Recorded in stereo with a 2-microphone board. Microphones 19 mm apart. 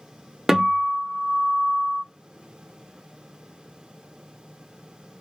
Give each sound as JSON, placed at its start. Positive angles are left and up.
{"t": 0.5, "sound": "a guitar", "side_deg": -20, "distance_m": 0.8}